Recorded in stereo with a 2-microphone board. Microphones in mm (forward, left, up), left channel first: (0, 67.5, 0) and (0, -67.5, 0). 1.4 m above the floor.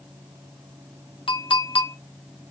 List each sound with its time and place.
1.3 s a clink: 45° left (ahead or behind), 0.5 m